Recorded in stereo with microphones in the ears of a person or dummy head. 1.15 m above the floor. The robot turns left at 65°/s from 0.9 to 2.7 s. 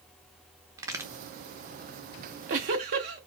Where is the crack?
15° right (ahead or behind), 1.0 m; by 1.1 s centre (ahead or behind), 1.0 m.